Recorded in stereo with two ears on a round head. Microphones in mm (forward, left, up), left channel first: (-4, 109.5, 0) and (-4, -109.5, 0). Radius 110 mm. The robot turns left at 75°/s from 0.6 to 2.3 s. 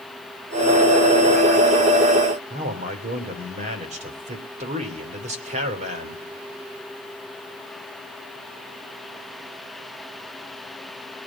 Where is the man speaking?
30° right (ahead or behind), 3 m.